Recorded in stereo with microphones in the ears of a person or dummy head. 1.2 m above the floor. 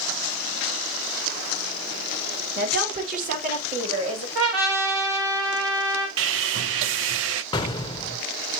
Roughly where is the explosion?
Left.